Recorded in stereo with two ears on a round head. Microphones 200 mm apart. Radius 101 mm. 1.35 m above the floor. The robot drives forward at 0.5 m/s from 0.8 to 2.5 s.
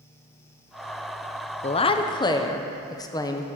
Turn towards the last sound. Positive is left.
turn(degrees=20)  # may be behind; listen again after turning